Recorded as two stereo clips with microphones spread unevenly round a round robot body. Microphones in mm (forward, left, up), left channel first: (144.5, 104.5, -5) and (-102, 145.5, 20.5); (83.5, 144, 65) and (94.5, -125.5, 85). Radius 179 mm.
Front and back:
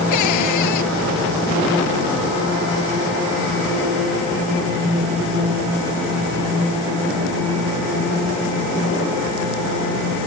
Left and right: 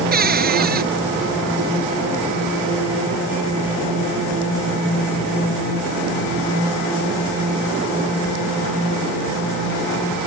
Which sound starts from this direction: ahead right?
A cupboard door, at 0.1 s.